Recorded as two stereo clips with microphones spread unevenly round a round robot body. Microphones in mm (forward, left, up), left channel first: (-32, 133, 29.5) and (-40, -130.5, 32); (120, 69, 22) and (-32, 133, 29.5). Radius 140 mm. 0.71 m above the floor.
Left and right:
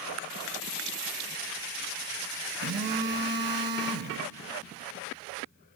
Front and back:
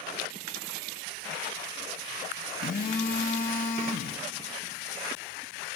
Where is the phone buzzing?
45° right, 0.9 m.